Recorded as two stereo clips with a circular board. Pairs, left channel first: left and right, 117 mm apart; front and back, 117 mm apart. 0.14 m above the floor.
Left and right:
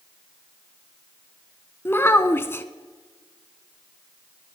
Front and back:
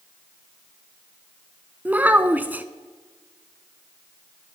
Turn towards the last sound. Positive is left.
turn(degrees=130)